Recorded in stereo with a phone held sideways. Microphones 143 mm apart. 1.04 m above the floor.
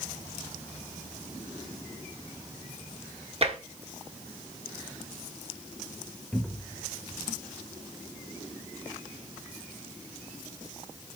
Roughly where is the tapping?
Right.